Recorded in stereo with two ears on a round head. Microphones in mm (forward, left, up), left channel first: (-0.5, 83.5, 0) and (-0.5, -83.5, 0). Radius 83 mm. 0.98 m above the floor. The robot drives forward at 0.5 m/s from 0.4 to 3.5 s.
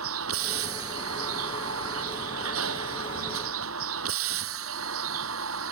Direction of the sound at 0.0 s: 90° right.